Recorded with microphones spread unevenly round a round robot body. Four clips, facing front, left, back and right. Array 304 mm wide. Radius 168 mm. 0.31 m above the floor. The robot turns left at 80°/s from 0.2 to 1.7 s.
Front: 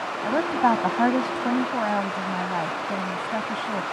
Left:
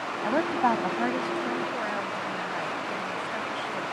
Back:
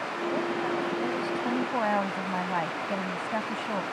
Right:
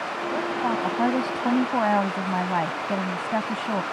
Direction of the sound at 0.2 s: 40° left.